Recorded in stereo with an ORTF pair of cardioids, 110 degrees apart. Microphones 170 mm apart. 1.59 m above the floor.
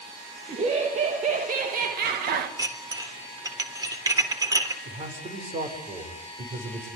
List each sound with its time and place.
0.5 s laughter: 40° right, 3 m; by 2.5 s 70° right, 2 m
2.6 s dishes clattering: 20° right, 3.5 m
4.8 s a man speaking: 40° right, 7 m